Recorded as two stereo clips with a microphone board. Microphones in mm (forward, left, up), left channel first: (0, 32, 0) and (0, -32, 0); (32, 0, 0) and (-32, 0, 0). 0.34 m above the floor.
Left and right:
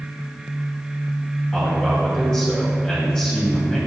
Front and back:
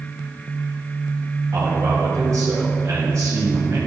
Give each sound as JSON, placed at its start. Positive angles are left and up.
{"t": 1.5, "sound": "a man speaking", "azimuth_deg": 165, "distance_m": 2.0}